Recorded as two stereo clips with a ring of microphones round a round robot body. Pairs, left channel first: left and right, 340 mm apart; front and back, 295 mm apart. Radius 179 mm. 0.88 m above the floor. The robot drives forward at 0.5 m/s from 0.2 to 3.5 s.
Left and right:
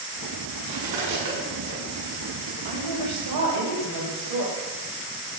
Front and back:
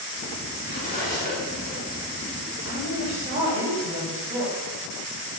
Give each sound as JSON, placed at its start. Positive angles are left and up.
{"t": 0.7, "sound": "cutlery clinking", "azimuth_deg": -65, "distance_m": 5.0}
{"t": 2.6, "sound": "a woman speaking", "azimuth_deg": -105, "distance_m": 5.5}